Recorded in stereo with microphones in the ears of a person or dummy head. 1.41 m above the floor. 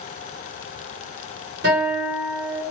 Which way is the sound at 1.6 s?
50° right (ahead or behind).